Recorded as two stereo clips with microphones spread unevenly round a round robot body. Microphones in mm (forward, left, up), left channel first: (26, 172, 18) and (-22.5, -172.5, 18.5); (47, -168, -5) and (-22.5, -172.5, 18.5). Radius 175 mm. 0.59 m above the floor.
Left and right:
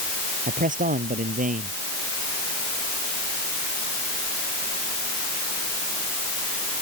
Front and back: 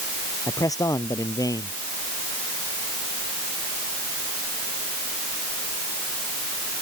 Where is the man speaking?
30° right.